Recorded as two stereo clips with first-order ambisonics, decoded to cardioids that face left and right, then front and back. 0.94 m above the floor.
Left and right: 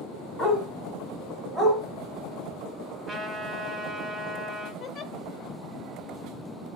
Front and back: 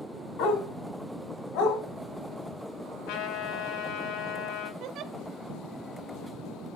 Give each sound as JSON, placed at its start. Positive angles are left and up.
{"t": 0.4, "sound": "a dog barking", "azimuth_deg": 20, "distance_m": 3.5}
{"t": 3.1, "sound": "a trumpet", "azimuth_deg": 5, "distance_m": 2.0}
{"t": 4.8, "sound": "a giggle", "azimuth_deg": 145, "distance_m": 1.1}